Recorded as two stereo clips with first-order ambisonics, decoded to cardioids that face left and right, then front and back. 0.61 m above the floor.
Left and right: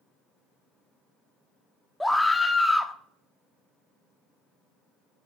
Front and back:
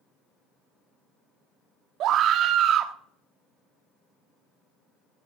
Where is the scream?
175° left, 1.0 m.